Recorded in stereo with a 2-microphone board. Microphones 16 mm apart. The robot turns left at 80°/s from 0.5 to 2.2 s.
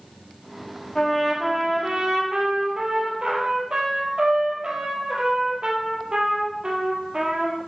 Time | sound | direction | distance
0.9 | a trumpet | 20° left | 3.5 m